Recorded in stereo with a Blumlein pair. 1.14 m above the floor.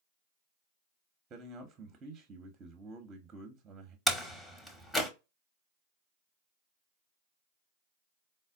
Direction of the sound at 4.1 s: 10° left.